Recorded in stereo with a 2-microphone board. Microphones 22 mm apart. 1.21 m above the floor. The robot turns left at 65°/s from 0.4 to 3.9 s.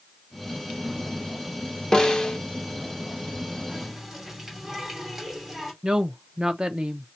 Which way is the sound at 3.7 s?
5° left (ahead or behind).